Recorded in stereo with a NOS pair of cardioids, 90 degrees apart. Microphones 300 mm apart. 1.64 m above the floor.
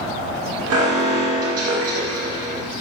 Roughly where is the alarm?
Ahead right.